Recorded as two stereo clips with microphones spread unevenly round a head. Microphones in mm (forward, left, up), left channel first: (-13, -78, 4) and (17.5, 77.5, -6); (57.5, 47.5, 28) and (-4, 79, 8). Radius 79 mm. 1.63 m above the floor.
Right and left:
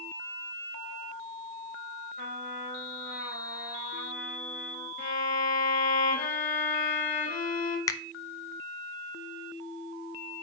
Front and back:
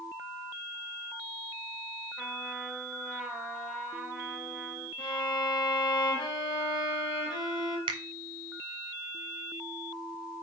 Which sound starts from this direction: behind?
A finger snap, at 7.9 s.